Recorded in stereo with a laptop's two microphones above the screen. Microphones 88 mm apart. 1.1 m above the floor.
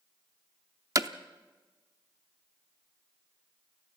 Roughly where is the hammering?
Right.